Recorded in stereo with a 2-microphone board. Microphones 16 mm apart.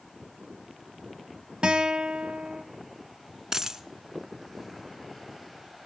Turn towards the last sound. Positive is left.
turn(degrees=-50)  # may be behind; listen again after turning